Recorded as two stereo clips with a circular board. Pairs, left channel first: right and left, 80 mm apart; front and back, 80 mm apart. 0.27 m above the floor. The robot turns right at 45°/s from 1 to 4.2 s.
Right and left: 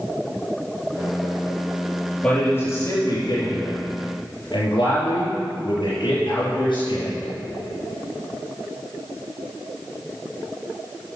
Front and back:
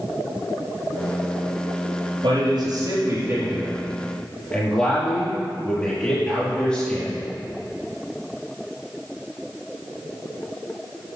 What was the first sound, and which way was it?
A man speaking, 165° right.